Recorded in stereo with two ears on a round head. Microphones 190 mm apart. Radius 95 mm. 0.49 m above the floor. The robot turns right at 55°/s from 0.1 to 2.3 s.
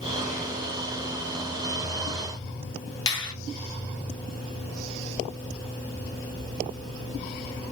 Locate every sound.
3.1 s a finger snap: 20° left (ahead or behind), 0.9 m